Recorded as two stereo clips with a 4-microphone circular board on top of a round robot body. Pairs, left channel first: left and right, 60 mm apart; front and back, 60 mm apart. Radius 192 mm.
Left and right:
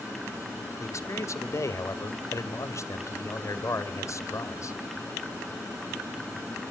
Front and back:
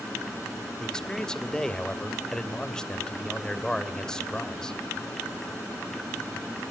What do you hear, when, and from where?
0.8 s a man speaking: 75° left, 2 m